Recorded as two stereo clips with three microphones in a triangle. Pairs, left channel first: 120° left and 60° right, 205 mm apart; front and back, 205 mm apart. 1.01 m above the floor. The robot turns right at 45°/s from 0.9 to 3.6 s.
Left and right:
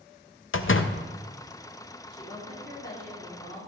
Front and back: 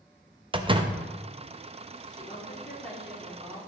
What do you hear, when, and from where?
0.5 s a door slam: 120° left, 0.6 m
2.1 s a woman speaking: 50° left, 3.5 m; by 3.7 s 120° left, 3.5 m